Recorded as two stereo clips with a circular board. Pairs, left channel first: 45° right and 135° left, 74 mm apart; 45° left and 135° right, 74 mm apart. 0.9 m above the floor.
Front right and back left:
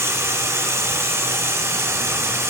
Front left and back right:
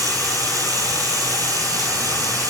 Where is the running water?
170° right, 2 m.